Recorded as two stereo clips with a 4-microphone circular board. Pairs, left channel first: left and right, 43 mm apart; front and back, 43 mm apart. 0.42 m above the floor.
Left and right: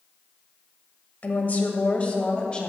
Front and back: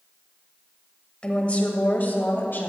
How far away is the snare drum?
I don't hear a snare drum.